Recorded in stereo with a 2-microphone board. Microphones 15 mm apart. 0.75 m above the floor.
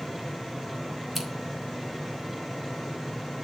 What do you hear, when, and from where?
1.1 s scissors: 10° left (ahead or behind), 3.5 m